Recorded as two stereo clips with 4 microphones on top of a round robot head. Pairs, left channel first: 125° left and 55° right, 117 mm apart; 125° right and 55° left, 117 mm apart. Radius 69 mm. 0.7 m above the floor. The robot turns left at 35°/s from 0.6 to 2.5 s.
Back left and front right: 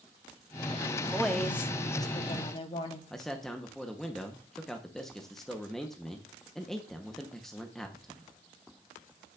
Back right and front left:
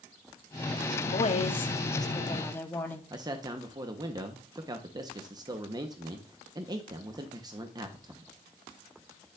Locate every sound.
1.1 s a woman speaking: 145° right, 1.0 m; by 3.0 s 165° left, 1.0 m
3.1 s a man speaking: 40° left, 1.0 m